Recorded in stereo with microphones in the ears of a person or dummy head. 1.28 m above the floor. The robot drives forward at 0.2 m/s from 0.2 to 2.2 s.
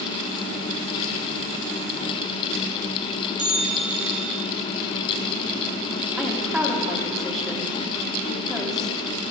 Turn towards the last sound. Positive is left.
turn(degrees=5)  # may be behind; listen again after turning